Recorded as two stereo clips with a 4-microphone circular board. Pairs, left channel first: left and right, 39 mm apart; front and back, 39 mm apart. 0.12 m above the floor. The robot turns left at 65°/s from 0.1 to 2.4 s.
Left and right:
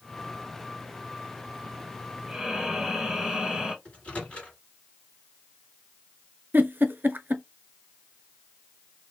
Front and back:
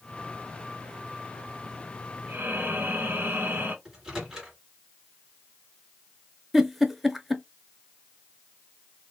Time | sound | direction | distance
2.3 | breathing | 160° right | 1.4 m
3.9 | a microwave | 110° left | 1.5 m
6.5 | a giggle | 90° right | 0.5 m